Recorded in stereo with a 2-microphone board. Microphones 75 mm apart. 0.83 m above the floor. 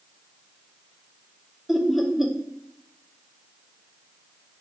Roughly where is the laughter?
Centre.